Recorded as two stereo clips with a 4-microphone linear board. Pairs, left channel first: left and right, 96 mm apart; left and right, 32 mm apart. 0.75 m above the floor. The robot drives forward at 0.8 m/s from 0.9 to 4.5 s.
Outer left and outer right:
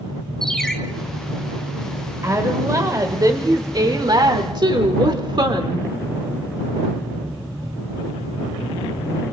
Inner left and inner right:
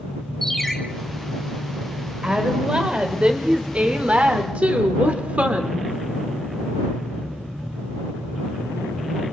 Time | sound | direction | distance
0.4 | a ringtone | 5° left (ahead or behind) | 3 m
2.2 | a woman speaking | 30° right (ahead or behind) | 4 m